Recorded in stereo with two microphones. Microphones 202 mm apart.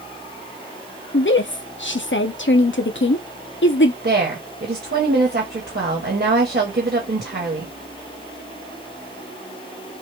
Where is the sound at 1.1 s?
70° left (ahead or behind), 0.5 m.